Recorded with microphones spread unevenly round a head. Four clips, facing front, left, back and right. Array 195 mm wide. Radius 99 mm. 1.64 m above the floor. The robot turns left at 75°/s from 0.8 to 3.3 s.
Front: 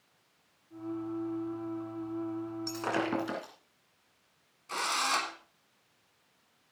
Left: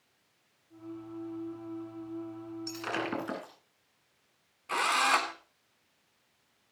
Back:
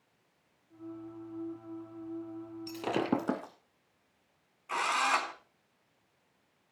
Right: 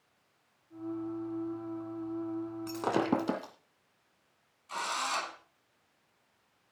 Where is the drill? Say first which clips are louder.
Left 7 dB, back 2 dB; 90° left, 3.5 m.